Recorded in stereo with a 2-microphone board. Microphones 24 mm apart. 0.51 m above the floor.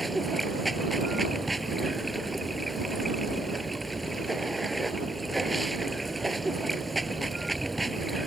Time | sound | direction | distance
0.0 | running water | centre (ahead or behind) | ?